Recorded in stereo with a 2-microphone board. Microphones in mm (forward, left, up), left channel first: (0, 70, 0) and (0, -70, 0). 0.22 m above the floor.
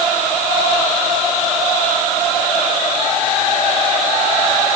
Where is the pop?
I don't hear a pop.